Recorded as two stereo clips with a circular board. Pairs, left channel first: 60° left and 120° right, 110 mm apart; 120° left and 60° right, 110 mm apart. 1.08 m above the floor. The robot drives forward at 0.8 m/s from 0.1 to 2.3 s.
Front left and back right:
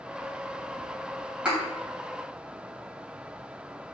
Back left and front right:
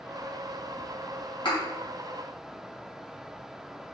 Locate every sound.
1.4 s a thud: 160° left, 3 m